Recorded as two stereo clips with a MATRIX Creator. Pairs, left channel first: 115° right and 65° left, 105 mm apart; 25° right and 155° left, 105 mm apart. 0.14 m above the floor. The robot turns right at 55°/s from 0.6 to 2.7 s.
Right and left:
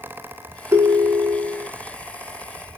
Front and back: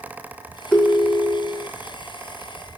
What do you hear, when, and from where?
0.7 s a ringtone: 50° left, 0.6 m; by 1.7 s 100° left, 0.6 m